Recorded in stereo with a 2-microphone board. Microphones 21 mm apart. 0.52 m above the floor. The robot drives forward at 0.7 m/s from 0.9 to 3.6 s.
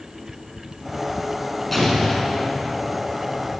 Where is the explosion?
10° left (ahead or behind), 5.5 m.